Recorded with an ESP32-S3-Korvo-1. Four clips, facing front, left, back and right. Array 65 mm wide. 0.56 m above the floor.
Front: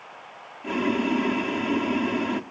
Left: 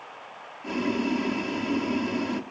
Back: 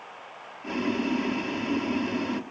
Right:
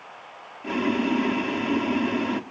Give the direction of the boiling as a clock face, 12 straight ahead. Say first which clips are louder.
Right 3 dB, front 3 dB; 3 o'clock.